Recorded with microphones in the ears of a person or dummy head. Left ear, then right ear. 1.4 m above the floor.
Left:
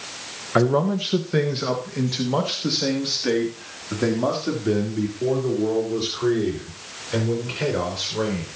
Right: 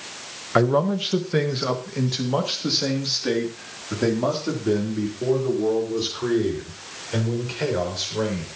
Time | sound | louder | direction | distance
0.6 | a man speaking | even | 15° right (ahead or behind) | 1.3 m